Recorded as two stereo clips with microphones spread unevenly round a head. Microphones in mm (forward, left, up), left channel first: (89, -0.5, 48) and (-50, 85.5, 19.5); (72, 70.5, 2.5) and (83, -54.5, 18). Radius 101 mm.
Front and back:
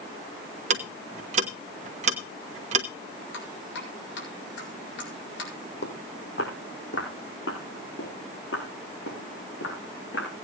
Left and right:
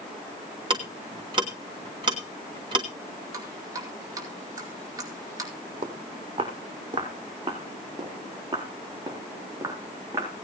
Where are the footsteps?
50° right, 3 m; by 10.3 s 20° right, 6 m.